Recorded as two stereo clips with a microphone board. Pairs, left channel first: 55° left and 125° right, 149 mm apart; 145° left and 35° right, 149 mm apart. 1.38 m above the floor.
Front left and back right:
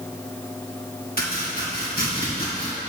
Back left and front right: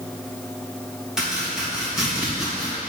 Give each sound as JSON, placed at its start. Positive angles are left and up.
{"t": 1.2, "sound": "chopping", "azimuth_deg": 50, "distance_m": 2.5}